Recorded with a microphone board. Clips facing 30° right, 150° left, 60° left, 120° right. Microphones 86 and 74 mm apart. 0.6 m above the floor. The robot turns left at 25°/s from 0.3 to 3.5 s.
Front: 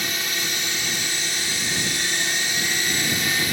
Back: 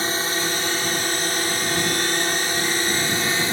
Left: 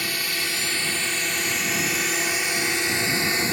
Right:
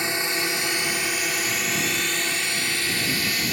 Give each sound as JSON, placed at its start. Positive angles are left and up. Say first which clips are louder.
{"t": 0.0, "sound": "a drone", "louder": "back 5 dB, right 3 dB", "azimuth_deg": -175}